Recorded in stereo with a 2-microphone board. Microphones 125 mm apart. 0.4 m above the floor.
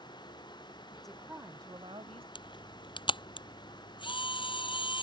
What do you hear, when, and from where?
1.0 s a woman speaking: 10° left (ahead or behind); by 2.2 s 50° right (ahead or behind)
2.4 s a camera shutter: 40° left (ahead or behind)